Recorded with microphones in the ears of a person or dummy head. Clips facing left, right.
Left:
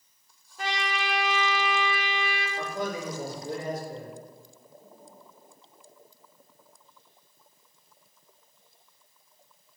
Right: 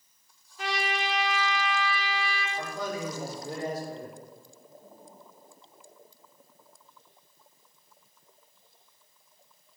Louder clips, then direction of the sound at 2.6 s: Left 2 dB; 20° left (ahead or behind).